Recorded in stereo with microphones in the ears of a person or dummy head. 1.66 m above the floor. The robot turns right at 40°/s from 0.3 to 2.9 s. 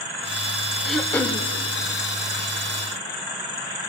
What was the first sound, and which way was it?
Throat clearing, centre (ahead or behind).